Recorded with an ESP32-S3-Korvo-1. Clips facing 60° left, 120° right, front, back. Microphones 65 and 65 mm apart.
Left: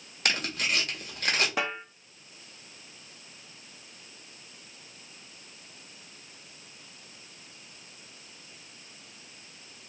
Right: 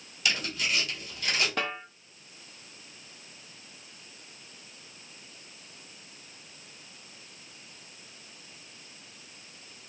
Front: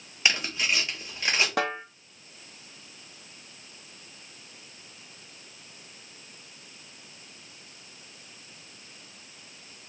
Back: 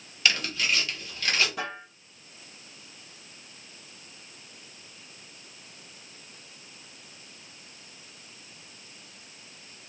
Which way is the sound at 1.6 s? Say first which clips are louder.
Left 1 dB, front 7 dB; 20° right.